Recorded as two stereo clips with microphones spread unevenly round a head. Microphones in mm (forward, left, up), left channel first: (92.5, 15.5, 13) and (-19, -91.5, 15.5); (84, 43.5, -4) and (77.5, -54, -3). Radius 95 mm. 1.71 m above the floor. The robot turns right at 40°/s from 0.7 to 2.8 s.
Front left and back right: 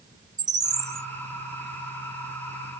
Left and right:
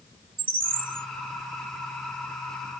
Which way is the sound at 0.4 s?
70° right.